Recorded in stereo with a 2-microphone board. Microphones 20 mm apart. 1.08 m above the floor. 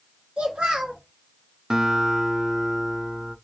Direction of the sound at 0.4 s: 80° right.